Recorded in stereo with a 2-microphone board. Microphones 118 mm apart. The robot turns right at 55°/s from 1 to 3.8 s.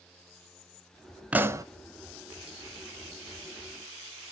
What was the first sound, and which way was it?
A pop, 10° right (ahead or behind).